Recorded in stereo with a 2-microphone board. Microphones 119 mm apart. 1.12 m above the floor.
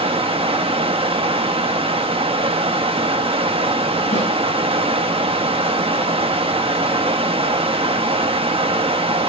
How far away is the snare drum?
About 9 m.